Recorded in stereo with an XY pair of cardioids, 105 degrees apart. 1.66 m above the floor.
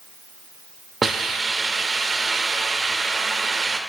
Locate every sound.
1.0 s a hiss: 35° right, 0.7 m